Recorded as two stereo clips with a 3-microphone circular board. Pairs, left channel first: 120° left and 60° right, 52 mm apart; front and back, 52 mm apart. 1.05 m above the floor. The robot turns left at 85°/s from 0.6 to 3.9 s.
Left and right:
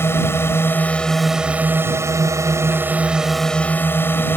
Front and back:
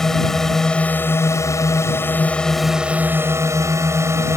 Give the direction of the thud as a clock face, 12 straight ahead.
I don't hear a thud.